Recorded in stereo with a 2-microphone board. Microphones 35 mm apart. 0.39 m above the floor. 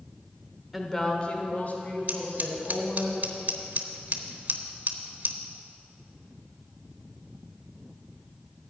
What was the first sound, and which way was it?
A woman speaking, centre (ahead or behind).